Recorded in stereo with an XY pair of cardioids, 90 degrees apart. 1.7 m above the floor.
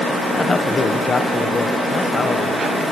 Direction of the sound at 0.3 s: 35° left.